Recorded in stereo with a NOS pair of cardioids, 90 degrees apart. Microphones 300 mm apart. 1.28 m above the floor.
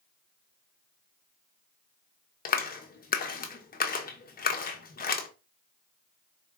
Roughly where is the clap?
Ahead left.